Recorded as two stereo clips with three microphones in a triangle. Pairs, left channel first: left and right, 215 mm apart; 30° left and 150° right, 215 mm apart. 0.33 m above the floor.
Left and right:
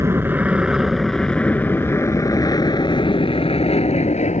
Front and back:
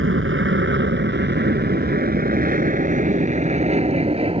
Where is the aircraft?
170° right; by 4.4 s 145° left.